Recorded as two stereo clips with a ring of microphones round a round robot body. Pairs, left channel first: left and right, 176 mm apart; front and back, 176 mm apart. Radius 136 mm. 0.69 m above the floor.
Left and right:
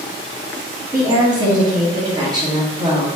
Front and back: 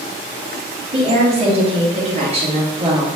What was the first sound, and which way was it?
A woman speaking, 150° right.